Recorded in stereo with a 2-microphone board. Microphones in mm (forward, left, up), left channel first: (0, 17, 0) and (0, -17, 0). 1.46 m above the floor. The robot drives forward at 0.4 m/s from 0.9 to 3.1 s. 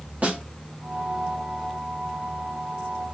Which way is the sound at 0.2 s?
45° right (ahead or behind).